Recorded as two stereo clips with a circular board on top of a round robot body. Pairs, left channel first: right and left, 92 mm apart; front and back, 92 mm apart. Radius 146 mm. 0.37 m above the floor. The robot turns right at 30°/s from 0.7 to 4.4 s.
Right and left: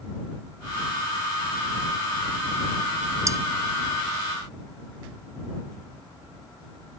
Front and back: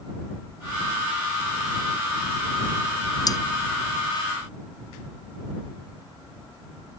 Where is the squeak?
No squeak in this recording.